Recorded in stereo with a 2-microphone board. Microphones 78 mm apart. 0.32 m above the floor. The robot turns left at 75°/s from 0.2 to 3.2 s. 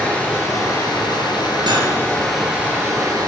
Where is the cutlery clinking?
80° right, 3 m; by 1.9 s 65° right (ahead or behind), 3 m.